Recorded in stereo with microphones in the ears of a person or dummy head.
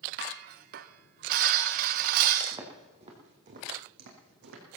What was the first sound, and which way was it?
Dishes clattering, 50° right (ahead or behind).